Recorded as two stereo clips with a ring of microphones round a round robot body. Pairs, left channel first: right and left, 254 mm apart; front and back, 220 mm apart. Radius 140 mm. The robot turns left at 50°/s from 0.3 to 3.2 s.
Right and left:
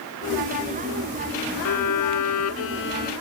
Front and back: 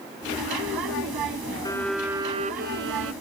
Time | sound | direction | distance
1.6 | a violin | 75° right | ?